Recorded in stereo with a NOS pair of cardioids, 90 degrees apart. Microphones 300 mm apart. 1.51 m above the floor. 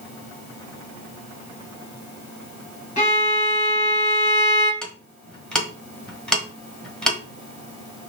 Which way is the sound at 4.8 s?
Straight ahead.